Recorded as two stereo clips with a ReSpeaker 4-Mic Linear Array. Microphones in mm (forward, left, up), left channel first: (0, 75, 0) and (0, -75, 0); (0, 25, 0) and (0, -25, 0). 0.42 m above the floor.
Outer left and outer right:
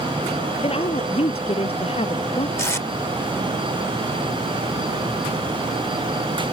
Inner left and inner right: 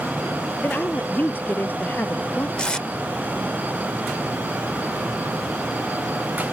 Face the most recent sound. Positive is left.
turn(degrees=20)  # may be behind; listen again after turning